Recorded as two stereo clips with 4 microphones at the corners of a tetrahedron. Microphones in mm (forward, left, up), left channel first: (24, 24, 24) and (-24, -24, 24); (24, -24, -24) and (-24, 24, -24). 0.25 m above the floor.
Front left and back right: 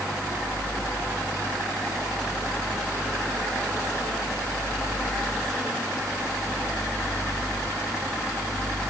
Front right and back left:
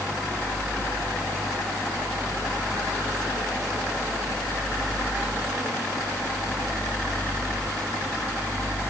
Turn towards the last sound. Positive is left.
No sound to turn to.